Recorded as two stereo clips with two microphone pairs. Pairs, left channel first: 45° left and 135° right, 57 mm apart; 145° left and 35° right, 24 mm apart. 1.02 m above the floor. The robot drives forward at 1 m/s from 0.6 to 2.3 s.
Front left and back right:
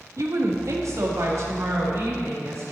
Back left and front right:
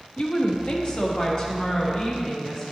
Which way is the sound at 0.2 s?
160° right.